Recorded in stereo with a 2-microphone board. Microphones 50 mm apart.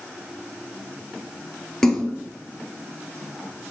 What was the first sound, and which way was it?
A splash, 10° left (ahead or behind).